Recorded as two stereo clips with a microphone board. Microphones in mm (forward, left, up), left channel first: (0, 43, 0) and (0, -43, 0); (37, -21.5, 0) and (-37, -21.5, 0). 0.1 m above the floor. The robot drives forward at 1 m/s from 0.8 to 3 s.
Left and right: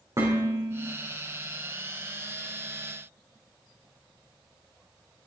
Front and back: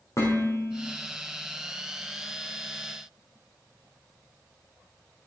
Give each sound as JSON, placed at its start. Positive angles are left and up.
{"t": 0.2, "sound": "dishes clattering", "azimuth_deg": -40, "distance_m": 6.0}